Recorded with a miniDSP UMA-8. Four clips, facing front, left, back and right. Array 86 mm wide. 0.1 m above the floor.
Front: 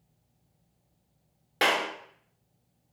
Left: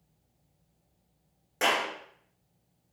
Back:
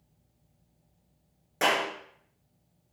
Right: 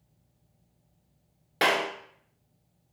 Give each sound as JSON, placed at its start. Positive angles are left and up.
{"t": 1.6, "sound": "a clap", "azimuth_deg": -50, "distance_m": 0.9}